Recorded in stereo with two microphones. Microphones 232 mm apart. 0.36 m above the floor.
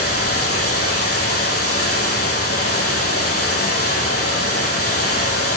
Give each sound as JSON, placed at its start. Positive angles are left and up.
{"t": 0.0, "sound": "running water", "side_deg": 80, "distance_m": 8.0}